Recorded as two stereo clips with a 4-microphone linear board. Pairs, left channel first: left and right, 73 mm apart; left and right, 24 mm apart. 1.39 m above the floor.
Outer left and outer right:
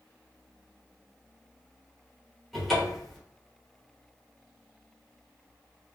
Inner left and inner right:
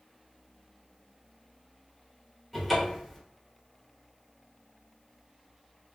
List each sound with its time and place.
2.5 s a cupboard door: centre (ahead or behind), 1.2 m